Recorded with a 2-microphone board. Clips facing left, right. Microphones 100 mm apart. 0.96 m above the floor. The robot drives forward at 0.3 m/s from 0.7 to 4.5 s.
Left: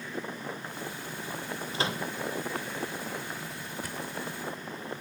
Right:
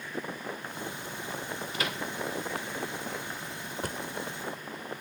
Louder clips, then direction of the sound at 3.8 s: Right 4 dB; 50° right (ahead or behind).